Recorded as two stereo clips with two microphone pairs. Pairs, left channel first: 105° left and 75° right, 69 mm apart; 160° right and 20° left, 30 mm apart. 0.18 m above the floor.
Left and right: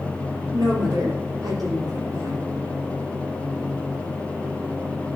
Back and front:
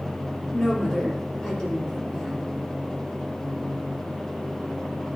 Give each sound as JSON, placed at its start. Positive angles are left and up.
{"t": 0.5, "sound": "a woman speaking", "azimuth_deg": -90, "distance_m": 4.5}